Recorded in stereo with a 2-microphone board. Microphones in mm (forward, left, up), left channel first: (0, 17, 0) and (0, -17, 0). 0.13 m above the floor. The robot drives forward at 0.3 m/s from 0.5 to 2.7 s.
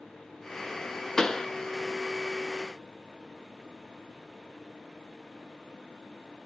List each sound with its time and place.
1.2 s a pop: 20° left (ahead or behind), 0.6 m